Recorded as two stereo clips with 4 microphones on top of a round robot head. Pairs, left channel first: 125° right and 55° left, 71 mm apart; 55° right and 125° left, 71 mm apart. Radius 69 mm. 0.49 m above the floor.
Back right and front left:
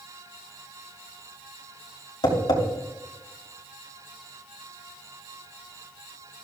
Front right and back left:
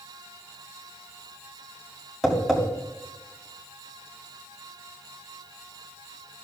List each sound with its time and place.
2.2 s tapping: 145° right, 3 m